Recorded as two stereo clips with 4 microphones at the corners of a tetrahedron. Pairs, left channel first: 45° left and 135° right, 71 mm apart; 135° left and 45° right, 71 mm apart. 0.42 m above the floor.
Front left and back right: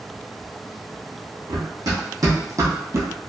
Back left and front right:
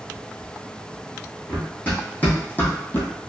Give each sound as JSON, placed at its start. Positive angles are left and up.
{"t": 1.5, "sound": "running footsteps", "azimuth_deg": -160, "distance_m": 1.8}